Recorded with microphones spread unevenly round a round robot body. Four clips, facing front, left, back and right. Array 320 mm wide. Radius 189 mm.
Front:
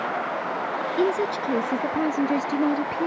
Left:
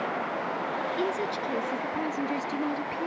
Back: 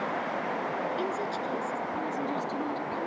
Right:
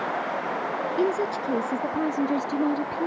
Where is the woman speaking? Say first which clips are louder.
Right 8 dB, front 8 dB; 35° right; by 3.1 s 30° right.